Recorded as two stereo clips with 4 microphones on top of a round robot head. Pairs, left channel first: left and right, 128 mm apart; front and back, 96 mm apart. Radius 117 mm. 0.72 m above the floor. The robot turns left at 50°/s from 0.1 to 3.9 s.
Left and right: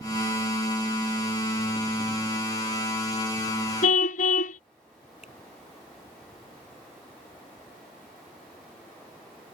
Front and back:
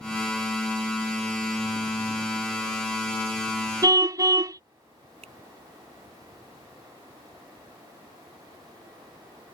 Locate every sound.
3.8 s a car horn: 130° left; by 4.6 s 125° left
5.2 s a finger snap: 175° right